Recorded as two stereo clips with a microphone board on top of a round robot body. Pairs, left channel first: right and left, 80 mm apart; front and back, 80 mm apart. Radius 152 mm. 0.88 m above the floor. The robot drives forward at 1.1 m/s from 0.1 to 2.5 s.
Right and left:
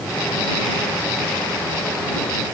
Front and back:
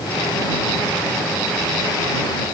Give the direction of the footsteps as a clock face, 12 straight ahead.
I don't hear footsteps.